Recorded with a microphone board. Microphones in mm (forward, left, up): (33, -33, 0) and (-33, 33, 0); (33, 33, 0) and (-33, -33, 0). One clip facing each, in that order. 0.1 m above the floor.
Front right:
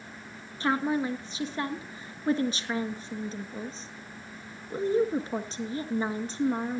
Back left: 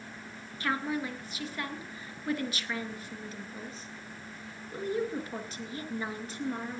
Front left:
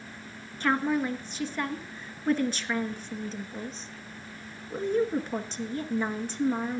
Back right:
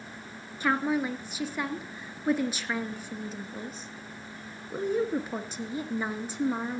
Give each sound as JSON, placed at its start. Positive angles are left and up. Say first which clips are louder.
{"t": 0.6, "sound": "a woman speaking", "louder": "front right 5 dB, front left 1 dB", "azimuth_deg": -60, "distance_m": 1.3}